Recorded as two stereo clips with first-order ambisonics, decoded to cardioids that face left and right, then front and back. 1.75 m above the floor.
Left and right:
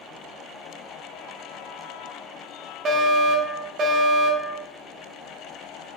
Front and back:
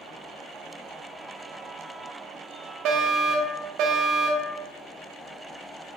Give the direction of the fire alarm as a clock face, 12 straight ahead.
5 o'clock.